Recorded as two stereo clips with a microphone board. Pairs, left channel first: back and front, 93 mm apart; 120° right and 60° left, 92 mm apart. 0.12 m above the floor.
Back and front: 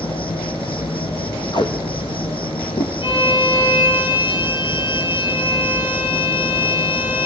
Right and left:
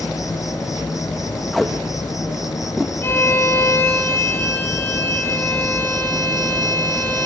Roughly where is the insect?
Behind.